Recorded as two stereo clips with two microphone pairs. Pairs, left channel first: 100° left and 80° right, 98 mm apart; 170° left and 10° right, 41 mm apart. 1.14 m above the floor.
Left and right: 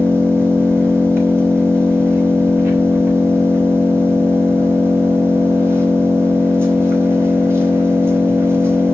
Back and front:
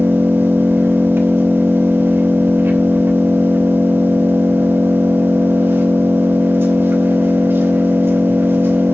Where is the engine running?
20° right, 4 m.